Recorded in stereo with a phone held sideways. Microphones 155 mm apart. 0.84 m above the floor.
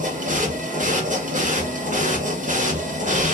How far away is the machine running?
About 0.9 m.